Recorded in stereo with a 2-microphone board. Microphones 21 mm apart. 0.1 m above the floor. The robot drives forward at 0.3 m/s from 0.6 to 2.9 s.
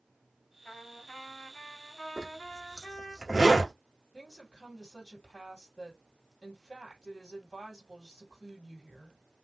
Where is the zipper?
10° right (ahead or behind), 2.0 m.